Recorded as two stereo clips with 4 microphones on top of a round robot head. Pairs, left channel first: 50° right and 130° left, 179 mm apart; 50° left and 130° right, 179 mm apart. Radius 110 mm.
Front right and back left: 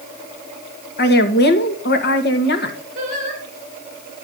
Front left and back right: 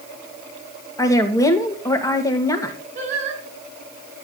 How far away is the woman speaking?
About 2.5 m.